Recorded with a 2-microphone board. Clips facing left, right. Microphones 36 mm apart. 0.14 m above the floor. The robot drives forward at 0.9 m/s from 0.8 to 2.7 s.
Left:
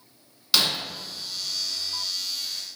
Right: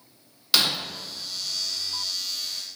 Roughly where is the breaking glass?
Centre.